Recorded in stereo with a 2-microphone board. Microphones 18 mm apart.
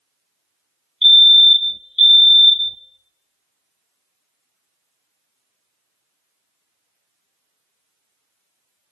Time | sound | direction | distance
1.0 | a fire alarm | centre (ahead or behind) | 0.9 m